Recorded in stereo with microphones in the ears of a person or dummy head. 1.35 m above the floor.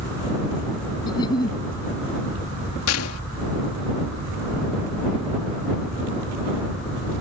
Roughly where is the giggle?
Left.